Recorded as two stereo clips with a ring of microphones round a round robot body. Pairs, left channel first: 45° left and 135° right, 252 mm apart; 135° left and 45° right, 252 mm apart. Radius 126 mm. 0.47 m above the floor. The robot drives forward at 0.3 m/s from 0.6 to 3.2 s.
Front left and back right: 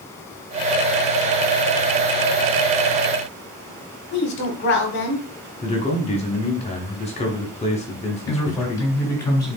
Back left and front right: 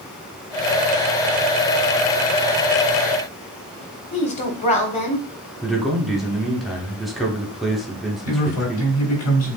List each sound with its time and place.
4.1 s a woman speaking: 80° left, 1.3 m
5.6 s a man speaking: 45° left, 1.0 m
8.2 s a man speaking: 120° left, 2.5 m